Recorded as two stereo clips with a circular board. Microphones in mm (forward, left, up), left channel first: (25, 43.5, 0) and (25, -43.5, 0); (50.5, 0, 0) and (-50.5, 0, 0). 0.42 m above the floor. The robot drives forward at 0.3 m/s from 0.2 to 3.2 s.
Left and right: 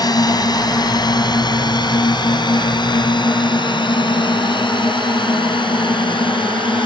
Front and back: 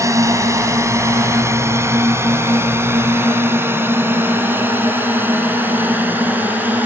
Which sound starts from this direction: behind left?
A drone, at 0.0 s.